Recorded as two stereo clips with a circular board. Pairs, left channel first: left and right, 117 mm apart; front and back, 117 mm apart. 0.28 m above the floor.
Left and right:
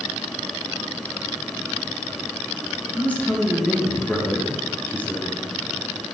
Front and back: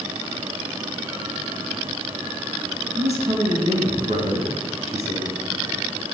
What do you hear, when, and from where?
3.0 s a man speaking: 165° left, 4.5 m